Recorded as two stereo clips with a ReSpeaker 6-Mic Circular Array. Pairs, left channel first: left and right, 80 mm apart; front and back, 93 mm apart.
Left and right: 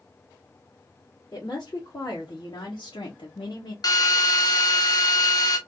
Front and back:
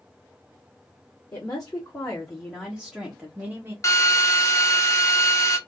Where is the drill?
55° left, 0.7 m.